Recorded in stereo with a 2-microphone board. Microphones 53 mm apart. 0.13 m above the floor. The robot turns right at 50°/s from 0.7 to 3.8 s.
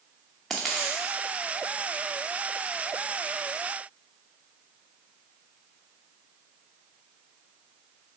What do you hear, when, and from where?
0.5 s a dropped coin: 10° left (ahead or behind), 0.8 m; by 1.0 s 5° right (ahead or behind), 0.8 m